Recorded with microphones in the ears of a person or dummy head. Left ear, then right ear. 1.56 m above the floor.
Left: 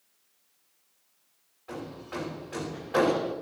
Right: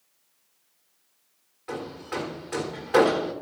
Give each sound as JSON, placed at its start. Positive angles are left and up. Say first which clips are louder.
{"t": 1.7, "sound": "hammering", "louder": "right 5 dB", "side_deg": -55, "distance_m": 2.0}